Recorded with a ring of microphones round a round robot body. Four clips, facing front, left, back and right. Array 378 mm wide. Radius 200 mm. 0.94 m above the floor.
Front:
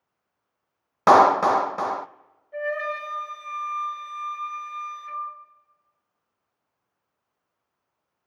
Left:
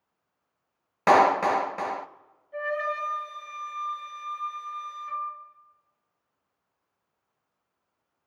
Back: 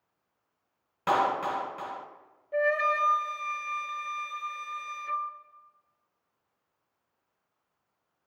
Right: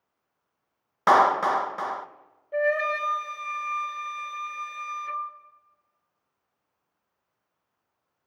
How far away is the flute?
About 2.5 m.